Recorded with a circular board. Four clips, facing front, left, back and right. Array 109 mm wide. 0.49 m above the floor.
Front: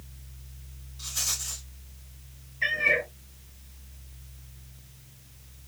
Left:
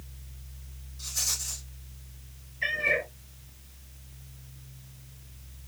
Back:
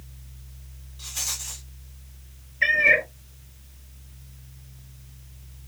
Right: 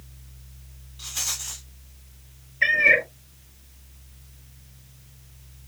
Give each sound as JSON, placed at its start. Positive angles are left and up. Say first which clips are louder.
{"t": 1.0, "sound": "a rattle", "louder": "right 4 dB, back 1 dB", "azimuth_deg": -110, "distance_m": 1.6}
{"t": 2.6, "sound": "a cat meowing", "louder": "right 8 dB, back 6 dB", "azimuth_deg": -125, "distance_m": 0.8}